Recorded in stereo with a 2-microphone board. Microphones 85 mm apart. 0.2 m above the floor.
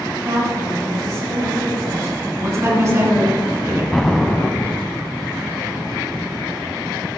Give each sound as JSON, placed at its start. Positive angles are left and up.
{"t": 0.2, "sound": "a woman speaking", "side_deg": -45, "distance_m": 2.0}
{"t": 2.4, "sound": "a man speaking", "side_deg": -35, "distance_m": 2.5}
{"t": 3.9, "sound": "an explosion", "side_deg": 5, "distance_m": 0.7}